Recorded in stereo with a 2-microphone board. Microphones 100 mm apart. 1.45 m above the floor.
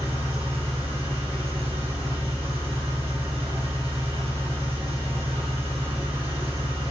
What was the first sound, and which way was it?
An engine running, 70° right (ahead or behind).